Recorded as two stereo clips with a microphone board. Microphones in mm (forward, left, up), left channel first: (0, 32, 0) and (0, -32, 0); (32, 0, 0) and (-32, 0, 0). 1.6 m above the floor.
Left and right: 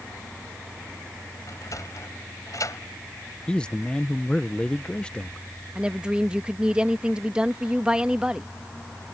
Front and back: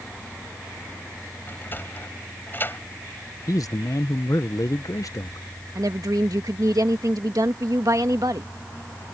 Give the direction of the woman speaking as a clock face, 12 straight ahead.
6 o'clock.